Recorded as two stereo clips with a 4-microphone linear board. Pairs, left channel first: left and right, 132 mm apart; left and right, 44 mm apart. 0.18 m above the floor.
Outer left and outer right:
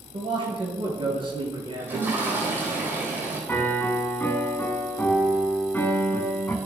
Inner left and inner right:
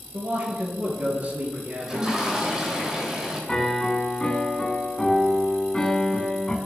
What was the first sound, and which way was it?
A man speaking, 40° right (ahead or behind).